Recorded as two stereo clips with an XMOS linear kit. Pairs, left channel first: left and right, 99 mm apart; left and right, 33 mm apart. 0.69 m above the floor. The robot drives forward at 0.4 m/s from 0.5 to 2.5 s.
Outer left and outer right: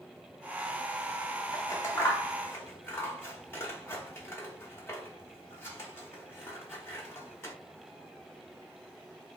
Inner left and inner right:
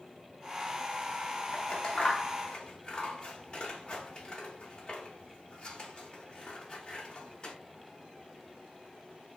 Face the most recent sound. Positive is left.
turn(degrees=25)  # may be behind; listen again after turning